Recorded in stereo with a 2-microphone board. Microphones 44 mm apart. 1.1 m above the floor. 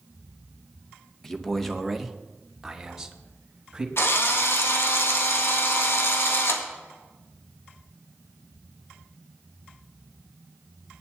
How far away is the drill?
About 1.9 m.